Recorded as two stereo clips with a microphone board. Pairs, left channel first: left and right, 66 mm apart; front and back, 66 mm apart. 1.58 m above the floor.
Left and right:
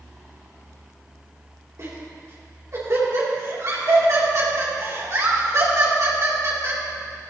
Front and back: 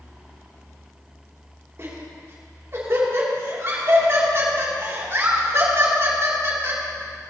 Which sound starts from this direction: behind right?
Laughter, at 1.8 s.